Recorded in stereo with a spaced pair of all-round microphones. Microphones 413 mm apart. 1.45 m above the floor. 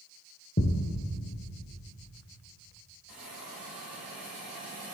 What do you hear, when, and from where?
0.6 s a thud: 25° left (ahead or behind), 1.6 m
3.1 s a hiss: 55° right (ahead or behind), 4 m